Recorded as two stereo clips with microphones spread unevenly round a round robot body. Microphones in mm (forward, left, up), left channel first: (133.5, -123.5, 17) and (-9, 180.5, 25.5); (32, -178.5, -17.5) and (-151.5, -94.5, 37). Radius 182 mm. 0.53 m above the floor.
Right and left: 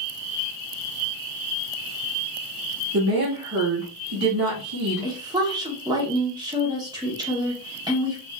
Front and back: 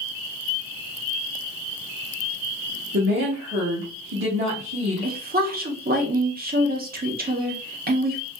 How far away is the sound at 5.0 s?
About 0.9 m.